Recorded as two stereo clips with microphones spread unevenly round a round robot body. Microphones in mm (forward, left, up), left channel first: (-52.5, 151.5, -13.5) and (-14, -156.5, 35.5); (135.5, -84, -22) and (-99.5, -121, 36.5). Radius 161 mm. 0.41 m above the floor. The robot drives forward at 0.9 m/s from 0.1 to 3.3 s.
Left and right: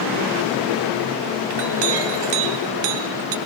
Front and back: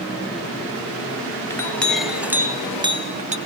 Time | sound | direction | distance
1.5 | a clink | 65° right | 2.5 m